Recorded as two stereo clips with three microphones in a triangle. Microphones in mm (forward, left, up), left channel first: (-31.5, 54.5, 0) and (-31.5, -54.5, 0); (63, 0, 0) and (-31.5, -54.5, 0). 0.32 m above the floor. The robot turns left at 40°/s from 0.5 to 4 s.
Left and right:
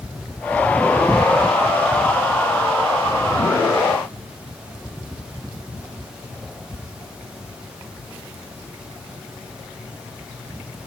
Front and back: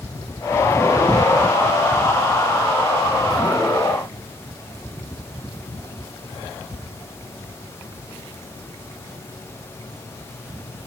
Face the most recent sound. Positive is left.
No sound to turn to.